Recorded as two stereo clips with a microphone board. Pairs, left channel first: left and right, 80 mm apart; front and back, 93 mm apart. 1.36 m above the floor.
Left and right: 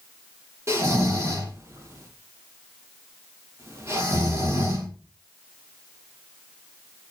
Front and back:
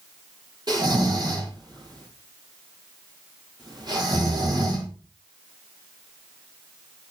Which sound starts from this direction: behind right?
Snoring, at 0.7 s.